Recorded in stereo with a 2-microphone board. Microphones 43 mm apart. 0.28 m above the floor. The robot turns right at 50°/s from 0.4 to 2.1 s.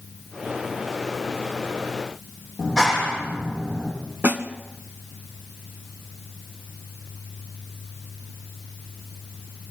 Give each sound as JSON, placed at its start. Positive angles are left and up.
{"t": 2.6, "sound": "a clap", "side_deg": -10, "distance_m": 10.0}
{"t": 4.2, "sound": "a snare drum", "side_deg": -40, "distance_m": 1.7}